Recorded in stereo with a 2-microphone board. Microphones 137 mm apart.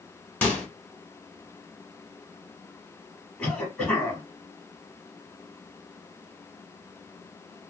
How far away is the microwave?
About 1.0 m.